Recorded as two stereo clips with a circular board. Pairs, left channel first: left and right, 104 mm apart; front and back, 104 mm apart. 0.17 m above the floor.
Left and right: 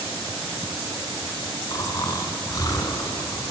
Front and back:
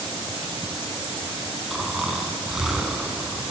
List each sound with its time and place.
1.7 s snoring: 100° left, 0.9 m